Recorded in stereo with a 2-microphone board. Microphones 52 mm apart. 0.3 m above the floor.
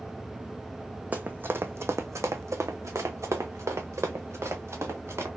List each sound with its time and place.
1.1 s running footsteps: 30° right (ahead or behind), 0.7 m; by 5.3 s 60° right (ahead or behind), 2 m